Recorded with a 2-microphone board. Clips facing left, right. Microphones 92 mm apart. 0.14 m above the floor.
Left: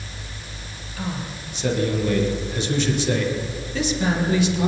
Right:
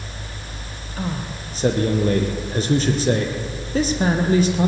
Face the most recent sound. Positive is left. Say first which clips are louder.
# right 2 dB
turn(degrees=-40)  # may be behind; listen again after turning